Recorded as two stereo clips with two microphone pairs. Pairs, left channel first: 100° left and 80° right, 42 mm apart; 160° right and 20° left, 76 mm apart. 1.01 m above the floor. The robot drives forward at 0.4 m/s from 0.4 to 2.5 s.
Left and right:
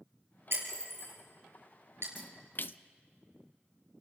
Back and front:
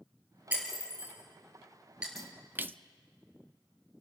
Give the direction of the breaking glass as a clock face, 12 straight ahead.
2 o'clock.